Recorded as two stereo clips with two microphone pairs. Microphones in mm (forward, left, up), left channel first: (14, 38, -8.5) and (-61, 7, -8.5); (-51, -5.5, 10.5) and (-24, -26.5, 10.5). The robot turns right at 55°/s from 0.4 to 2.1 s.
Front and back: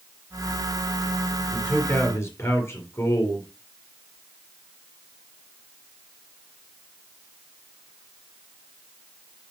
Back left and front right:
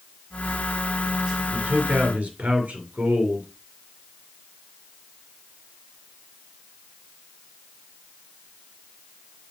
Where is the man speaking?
55° right, 2.5 m; by 3.5 s 20° right, 2.5 m.